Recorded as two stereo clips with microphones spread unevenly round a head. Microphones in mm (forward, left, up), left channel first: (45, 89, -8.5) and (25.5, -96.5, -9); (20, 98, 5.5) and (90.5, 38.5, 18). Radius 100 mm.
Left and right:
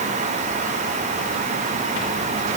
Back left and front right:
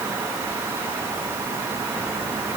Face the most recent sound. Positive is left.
No sound to turn to.